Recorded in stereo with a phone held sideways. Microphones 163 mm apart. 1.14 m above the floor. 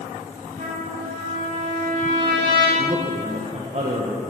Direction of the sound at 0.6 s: 65° right (ahead or behind).